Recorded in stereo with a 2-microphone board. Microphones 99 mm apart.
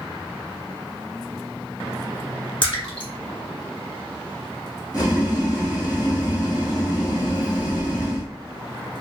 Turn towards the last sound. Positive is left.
turn(degrees=35)  # may be behind; listen again after turning